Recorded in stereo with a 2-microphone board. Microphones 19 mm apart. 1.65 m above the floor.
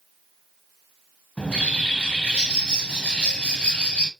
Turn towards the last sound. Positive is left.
turn(degrees=80)